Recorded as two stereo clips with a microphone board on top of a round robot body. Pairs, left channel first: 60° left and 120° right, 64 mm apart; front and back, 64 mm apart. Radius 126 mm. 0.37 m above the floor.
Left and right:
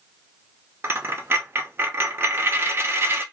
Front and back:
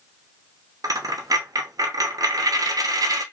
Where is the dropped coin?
170° right, 0.8 m.